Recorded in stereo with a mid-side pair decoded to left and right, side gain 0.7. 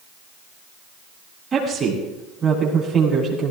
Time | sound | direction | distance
1.5 | a woman speaking | 25° right | 9 m